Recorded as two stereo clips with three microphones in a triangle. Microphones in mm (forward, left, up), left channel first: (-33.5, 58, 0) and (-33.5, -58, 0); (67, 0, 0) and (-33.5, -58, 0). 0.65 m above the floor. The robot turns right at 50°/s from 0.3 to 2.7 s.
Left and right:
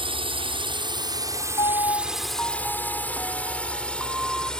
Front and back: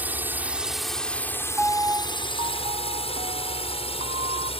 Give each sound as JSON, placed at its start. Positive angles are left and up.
{"t": 0.0, "sound": "a drone", "azimuth_deg": -80}
{"t": 1.6, "sound": "a piano", "azimuth_deg": 125}